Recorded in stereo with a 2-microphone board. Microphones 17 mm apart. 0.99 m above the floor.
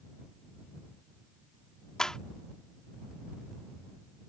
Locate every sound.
2.0 s a clap: 45° left (ahead or behind)